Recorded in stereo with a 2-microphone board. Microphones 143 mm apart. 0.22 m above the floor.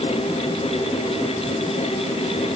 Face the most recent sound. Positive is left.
No sound to turn to.